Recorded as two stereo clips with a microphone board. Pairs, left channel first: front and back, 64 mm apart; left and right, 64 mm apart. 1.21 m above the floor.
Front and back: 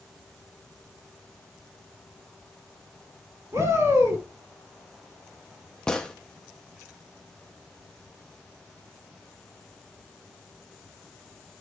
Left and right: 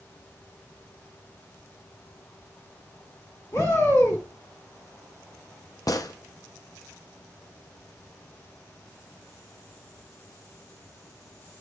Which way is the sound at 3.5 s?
135° left.